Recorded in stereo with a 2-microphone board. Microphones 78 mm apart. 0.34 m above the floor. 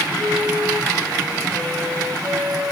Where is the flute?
25° right (ahead or behind), 4.5 m.